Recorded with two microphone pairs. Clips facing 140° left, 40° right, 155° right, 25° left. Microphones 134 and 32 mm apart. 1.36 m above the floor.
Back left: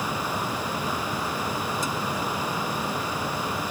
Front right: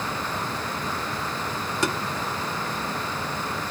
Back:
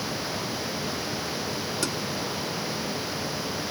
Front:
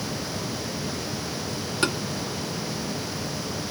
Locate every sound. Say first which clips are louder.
1.8 s tapping: front right 3 dB, front 7 dB; 25° right